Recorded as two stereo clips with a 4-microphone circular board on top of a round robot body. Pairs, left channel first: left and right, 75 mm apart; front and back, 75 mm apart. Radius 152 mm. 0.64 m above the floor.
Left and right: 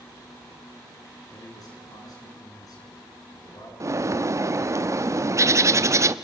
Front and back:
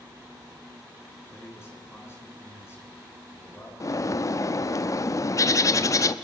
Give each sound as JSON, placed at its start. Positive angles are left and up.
{"t": 1.3, "sound": "a man speaking", "azimuth_deg": 55, "distance_m": 8.0}
{"t": 3.8, "sound": "a bird", "azimuth_deg": -45, "distance_m": 0.9}